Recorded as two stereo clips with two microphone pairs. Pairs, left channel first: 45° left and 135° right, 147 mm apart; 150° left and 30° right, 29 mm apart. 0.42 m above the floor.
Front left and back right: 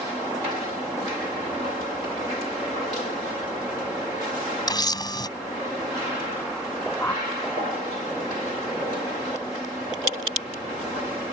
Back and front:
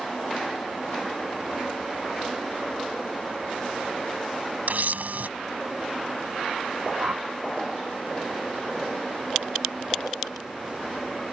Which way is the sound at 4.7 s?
15° right.